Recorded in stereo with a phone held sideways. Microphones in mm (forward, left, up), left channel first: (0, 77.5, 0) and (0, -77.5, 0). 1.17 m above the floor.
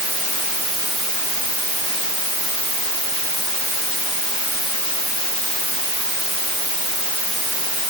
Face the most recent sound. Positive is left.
No sound to turn to.